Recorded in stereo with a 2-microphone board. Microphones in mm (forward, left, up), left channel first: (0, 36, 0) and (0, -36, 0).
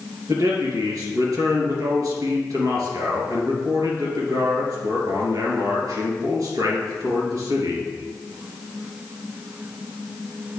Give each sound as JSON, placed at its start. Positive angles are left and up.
{"t": 0.3, "sound": "a man speaking", "side_deg": -60, "distance_m": 3.0}